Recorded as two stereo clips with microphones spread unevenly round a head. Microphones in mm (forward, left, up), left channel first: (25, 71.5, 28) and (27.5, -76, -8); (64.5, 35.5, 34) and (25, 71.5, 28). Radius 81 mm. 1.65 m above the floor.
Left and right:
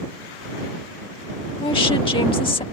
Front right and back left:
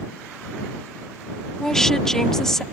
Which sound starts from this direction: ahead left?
A woman speaking, at 1.6 s.